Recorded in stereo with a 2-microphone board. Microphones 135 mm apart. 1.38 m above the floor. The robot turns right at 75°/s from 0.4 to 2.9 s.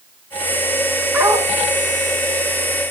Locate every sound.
1.1 s a dog barking: 15° right (ahead or behind), 4.5 m; by 1.5 s 40° right (ahead or behind), 4.5 m